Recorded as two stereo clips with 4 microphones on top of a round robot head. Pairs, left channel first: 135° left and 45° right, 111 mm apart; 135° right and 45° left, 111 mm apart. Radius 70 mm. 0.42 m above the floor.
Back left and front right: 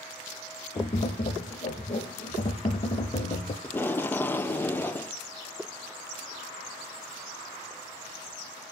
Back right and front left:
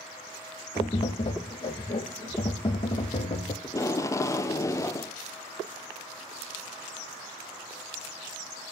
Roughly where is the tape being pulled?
Behind.